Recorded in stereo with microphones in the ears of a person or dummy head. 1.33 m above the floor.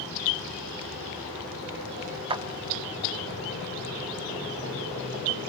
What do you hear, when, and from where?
2.3 s a clap: 25° right (ahead or behind), 1.4 m